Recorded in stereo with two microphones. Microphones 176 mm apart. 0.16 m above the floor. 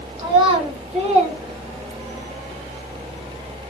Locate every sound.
0.2 s a child speaking: 25° right (ahead or behind), 1.2 m; by 2.3 s 40° right (ahead or behind), 1.6 m